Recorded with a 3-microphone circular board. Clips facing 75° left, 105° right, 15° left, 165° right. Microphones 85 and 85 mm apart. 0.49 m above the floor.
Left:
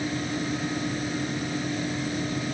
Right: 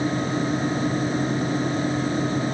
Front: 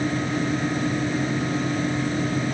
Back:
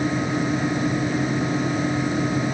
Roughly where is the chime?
I don't hear a chime.